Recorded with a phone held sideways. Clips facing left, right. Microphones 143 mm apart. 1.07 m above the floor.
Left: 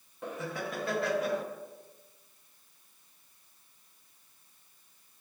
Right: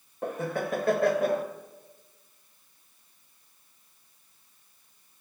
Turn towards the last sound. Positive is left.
turn(degrees=-50)  # may be behind; listen again after turning